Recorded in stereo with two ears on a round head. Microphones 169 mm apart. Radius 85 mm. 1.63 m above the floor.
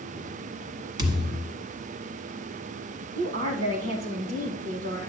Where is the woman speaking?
55° right (ahead or behind), 1.4 m.